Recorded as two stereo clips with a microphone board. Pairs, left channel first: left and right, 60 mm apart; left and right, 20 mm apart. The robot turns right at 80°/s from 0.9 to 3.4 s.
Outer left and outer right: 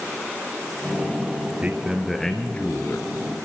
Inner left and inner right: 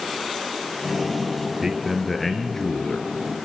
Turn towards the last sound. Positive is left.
turn(degrees=105)